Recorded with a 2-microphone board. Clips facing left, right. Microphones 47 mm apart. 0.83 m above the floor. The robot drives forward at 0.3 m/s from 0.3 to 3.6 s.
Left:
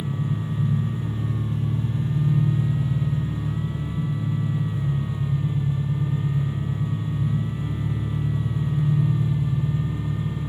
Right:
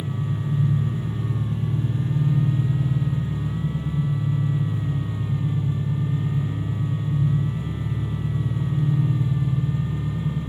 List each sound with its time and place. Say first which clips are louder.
0.0 s an engine running: even; 60° right (ahead or behind), 1.8 m; by 10.5 s 40° right (ahead or behind), 2.5 m